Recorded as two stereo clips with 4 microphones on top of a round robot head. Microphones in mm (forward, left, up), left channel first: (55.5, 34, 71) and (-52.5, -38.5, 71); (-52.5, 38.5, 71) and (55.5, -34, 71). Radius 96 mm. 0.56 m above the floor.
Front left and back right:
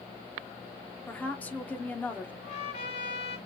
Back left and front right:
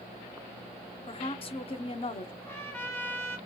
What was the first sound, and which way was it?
A woman speaking, 110° left.